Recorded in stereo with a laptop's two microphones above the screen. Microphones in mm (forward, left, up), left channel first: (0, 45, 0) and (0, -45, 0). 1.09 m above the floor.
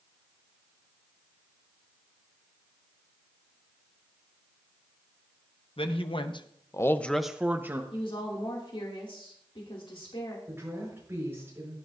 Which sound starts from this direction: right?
A woman speaking, at 10.5 s.